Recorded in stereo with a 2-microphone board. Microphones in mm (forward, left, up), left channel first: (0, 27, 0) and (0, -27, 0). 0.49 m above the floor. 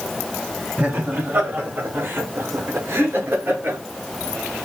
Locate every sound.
0.8 s laughter: 30° right (ahead or behind), 1.7 m; by 3.8 s 40° right (ahead or behind), 2 m